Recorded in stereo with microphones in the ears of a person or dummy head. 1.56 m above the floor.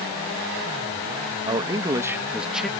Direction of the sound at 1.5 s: 25° right (ahead or behind).